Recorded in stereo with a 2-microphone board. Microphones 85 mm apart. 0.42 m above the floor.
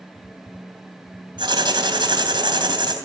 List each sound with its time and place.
1.4 s writing: 65° right (ahead or behind), 3 m